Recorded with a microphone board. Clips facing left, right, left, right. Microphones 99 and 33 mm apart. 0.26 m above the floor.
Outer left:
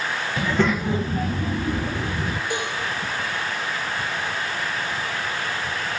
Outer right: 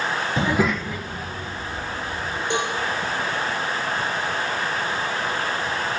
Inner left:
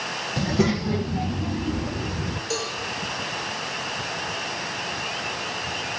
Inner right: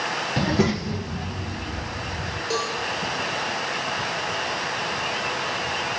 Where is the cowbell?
25° right (ahead or behind), 6 m.